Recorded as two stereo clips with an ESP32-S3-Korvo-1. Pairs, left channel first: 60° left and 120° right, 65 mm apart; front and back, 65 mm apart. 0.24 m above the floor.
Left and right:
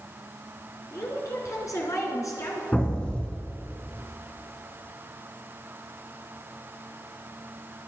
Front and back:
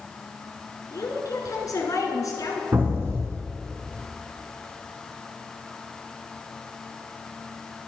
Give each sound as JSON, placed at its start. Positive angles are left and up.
{"t": 0.9, "sound": "a woman speaking", "azimuth_deg": 30, "distance_m": 3.5}
{"t": 2.7, "sound": "an explosion", "azimuth_deg": 135, "distance_m": 3.0}